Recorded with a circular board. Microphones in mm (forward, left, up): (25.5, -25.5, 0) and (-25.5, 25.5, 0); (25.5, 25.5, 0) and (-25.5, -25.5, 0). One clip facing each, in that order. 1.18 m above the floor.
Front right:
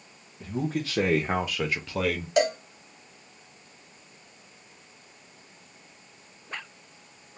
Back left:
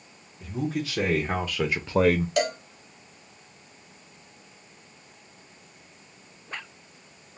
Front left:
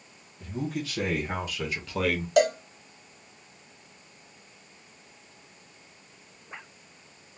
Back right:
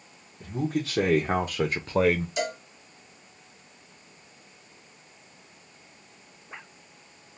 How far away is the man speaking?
About 1.0 m.